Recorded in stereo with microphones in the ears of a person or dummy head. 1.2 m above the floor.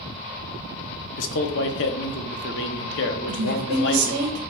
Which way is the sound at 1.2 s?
60° left (ahead or behind).